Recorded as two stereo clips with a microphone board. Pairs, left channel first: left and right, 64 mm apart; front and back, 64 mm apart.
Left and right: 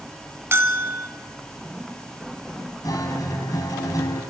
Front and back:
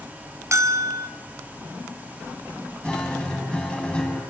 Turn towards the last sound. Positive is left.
turn(degrees=75)